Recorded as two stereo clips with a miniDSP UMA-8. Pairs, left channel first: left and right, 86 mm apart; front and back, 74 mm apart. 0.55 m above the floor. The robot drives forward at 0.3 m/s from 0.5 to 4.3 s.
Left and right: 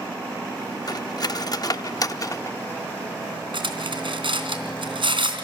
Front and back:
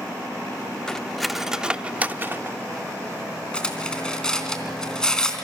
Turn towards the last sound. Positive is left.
turn(degrees=-80)